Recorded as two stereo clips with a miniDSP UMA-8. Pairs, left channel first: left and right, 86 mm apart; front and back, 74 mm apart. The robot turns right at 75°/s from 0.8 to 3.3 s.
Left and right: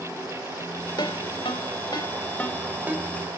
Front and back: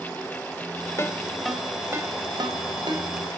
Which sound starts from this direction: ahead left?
A ringtone, at 1.0 s.